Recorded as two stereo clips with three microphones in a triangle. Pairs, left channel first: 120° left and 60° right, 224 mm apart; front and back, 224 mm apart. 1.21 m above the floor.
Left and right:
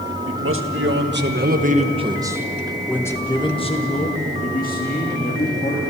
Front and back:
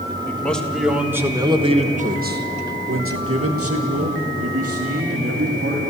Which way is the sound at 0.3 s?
80° right.